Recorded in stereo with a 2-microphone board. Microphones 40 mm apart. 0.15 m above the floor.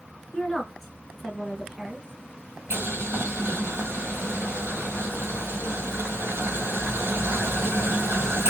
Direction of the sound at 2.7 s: 80° right.